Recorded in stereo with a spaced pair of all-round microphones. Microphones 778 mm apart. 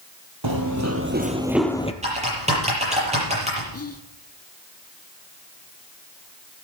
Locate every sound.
0.4 s running footsteps: 30° right (ahead or behind), 1.3 m; by 1.9 s 10° left (ahead or behind), 1.1 m
2.0 s typing on a keyboard: 10° right (ahead or behind), 7 m
3.7 s whispering: 20° left (ahead or behind), 0.6 m